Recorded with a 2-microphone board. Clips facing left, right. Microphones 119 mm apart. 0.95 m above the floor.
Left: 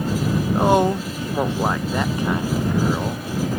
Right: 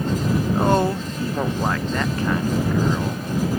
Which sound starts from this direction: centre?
A woman speaking, at 0.6 s.